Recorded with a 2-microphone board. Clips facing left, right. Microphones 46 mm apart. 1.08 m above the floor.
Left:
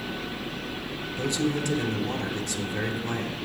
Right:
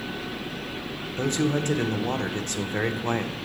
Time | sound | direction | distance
1.2 | a man speaking | 40° right (ahead or behind) | 0.6 m